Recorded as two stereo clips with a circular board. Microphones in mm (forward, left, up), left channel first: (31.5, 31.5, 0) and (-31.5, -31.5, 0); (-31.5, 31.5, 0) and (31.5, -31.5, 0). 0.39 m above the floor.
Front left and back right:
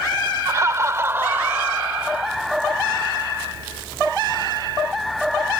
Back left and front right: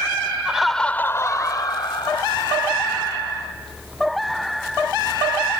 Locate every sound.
0.5 s laughter: 115° right; by 3.5 s 140° left